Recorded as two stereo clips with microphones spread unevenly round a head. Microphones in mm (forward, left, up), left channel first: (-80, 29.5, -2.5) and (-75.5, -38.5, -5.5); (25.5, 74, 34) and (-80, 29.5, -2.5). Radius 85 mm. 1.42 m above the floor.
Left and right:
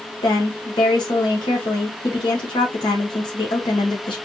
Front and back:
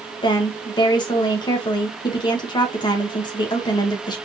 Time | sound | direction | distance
0.2 | a woman speaking | 70° left | 1.1 m